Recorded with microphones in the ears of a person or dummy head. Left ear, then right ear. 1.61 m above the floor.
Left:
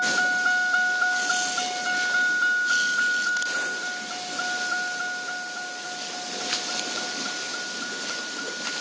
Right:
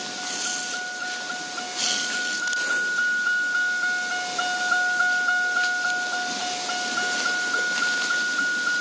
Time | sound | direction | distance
0.0 | a vehicle | 55° left (ahead or behind) | ?